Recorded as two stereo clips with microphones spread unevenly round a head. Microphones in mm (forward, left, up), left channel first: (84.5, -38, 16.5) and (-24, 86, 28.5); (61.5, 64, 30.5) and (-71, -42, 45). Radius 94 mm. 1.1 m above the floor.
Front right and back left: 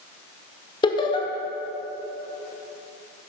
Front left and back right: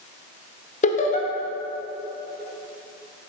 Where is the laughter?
5° left, 1.1 m.